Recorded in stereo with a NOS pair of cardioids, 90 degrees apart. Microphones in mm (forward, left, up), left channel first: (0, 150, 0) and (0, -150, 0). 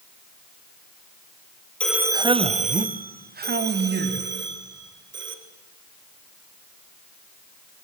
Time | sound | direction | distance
1.8 | a man speaking | 5° left | 0.6 m